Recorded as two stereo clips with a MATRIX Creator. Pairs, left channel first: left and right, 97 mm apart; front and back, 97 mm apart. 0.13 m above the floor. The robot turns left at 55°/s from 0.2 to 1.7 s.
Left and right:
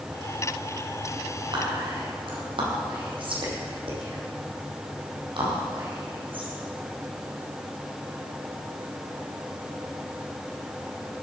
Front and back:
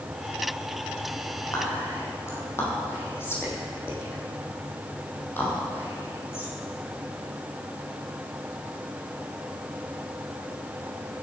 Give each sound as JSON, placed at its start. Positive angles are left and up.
{"t": 1.5, "sound": "whispering", "azimuth_deg": -55, "distance_m": 4.5}